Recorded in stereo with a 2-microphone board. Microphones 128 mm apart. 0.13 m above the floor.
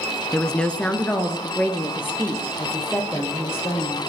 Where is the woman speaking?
5° left (ahead or behind), 1.2 m; by 4.0 s 20° left (ahead or behind), 5.5 m.